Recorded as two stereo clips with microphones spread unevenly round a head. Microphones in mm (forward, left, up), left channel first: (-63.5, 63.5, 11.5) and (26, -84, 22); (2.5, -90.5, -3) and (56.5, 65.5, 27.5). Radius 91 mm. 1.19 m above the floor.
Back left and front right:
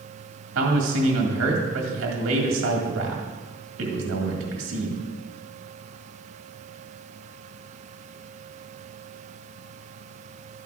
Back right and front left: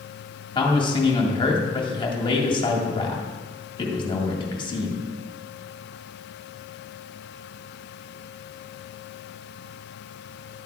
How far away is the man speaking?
About 1.8 m.